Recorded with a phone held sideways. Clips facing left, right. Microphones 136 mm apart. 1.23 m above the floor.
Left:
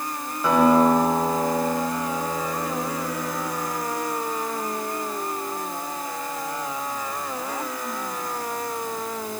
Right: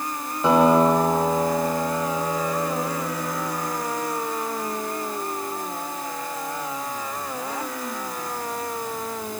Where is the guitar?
25° right (ahead or behind), 6.5 m.